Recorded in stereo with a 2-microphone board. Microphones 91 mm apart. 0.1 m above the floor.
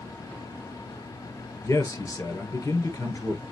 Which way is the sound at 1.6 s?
40° left (ahead or behind).